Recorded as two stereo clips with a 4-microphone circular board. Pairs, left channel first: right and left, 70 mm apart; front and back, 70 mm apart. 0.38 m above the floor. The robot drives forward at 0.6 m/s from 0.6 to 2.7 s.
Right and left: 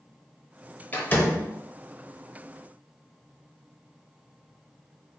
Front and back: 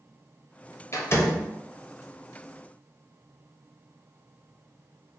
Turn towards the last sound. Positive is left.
turn(degrees=-125)